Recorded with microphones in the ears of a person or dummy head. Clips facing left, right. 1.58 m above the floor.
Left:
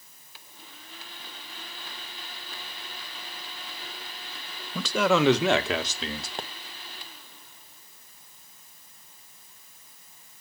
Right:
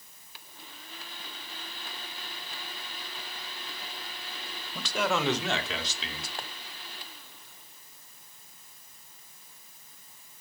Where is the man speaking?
75° left (ahead or behind), 1.3 m; by 6.3 s 35° left (ahead or behind), 1.7 m.